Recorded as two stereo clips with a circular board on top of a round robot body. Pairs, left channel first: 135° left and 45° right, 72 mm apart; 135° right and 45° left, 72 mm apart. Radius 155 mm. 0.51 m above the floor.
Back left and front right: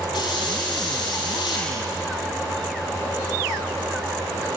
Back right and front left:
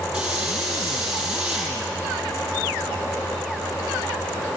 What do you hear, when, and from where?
0.1 s a hiss: 125° left, 7 m